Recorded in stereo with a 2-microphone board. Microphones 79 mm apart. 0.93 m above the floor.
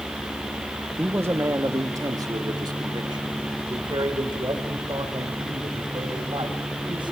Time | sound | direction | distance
1.0 | a man speaking | 25° right (ahead or behind) | 1.3 m